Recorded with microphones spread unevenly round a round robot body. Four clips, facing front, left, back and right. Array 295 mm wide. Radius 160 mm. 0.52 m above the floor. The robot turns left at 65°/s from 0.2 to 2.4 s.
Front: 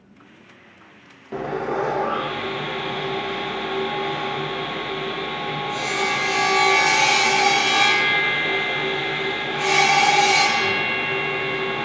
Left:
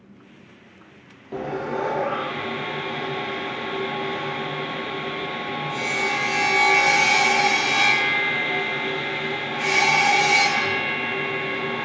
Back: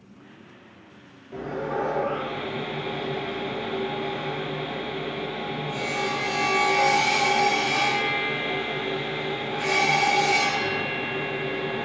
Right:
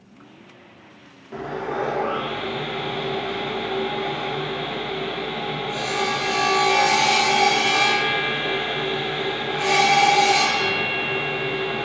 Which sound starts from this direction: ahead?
Sawing, at 1.3 s.